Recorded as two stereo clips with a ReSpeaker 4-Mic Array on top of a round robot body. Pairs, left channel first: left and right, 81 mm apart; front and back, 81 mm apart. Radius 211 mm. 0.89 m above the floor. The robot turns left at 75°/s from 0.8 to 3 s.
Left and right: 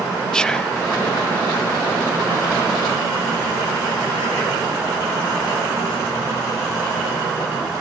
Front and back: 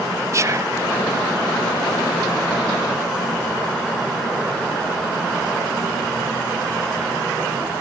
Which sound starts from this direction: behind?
Whispering, at 0.3 s.